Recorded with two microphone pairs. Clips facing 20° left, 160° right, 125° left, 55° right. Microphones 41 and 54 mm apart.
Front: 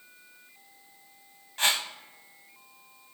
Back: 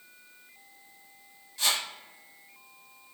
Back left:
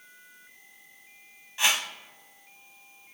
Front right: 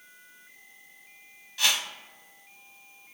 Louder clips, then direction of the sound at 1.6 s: Front 3 dB, back left 2 dB; 60° left.